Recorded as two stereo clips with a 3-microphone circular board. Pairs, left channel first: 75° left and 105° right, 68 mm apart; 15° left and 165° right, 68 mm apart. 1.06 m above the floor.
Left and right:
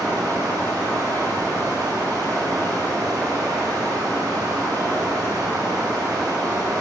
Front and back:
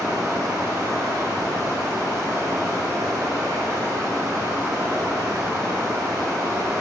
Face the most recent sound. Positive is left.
turn(degrees=-120)